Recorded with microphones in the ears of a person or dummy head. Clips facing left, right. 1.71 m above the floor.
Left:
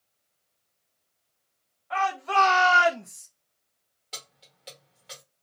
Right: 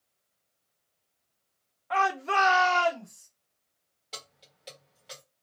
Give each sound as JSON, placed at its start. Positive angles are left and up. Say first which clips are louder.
{"t": 1.9, "sound": "a shout", "louder": "left 1 dB", "side_deg": -55, "distance_m": 1.1}
{"t": 4.1, "sound": "keys jangling", "louder": "even", "side_deg": 5, "distance_m": 1.5}